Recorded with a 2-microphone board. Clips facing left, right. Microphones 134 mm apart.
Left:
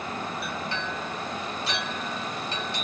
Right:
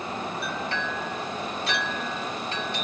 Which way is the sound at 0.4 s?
55° right (ahead or behind).